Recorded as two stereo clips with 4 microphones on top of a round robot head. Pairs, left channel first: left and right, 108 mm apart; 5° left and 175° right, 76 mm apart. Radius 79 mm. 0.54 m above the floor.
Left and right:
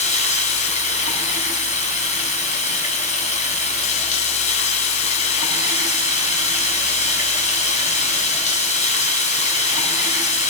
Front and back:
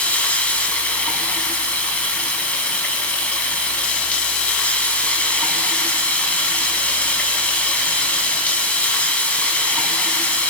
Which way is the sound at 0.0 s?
80° left.